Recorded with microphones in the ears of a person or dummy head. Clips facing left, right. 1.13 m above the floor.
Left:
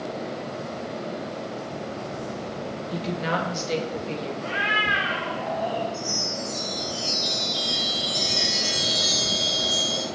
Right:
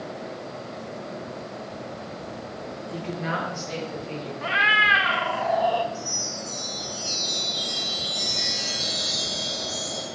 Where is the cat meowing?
60° right (ahead or behind), 0.6 m.